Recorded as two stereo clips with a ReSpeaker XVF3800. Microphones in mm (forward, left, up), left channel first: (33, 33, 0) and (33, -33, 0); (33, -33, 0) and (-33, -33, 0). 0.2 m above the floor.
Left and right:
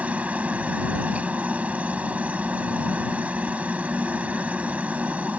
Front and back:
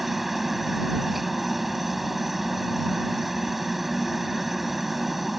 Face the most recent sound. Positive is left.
turn(degrees=-95)